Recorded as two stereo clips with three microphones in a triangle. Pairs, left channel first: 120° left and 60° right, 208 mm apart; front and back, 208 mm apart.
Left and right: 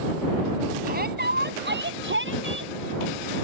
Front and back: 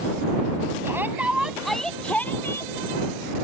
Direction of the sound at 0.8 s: 100° right.